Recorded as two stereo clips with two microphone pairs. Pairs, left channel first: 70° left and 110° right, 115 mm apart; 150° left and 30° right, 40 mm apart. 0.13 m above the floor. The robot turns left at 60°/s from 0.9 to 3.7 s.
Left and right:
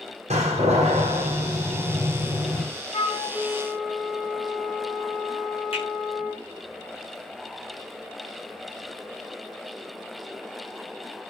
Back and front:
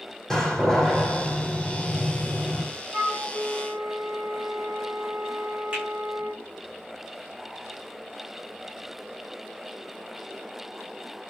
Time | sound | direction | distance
0.3 | a door slam | 130° right | 5.5 m
2.9 | a flute | 80° left | 9 m
5.7 | a finger snap | 35° left | 9 m